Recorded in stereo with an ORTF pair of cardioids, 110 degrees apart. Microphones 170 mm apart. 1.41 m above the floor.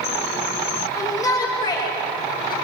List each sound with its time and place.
0.9 s a shout: 20° left, 7 m; by 2.5 s 30° left, 6.5 m